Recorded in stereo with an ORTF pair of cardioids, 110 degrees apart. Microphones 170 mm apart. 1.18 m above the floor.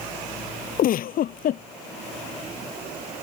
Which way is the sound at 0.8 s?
60° left.